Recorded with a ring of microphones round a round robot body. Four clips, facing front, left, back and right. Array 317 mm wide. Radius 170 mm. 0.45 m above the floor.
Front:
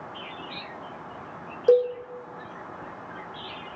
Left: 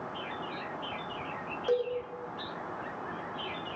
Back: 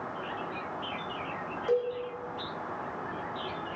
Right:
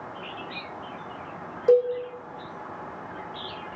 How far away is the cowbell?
About 4 m.